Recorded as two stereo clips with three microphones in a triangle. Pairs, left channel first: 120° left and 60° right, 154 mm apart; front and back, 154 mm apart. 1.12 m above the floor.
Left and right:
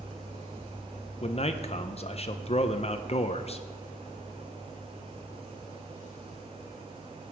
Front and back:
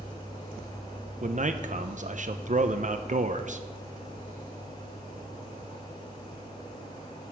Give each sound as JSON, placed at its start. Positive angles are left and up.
{"t": 1.2, "sound": "a man speaking", "azimuth_deg": 160, "distance_m": 0.5}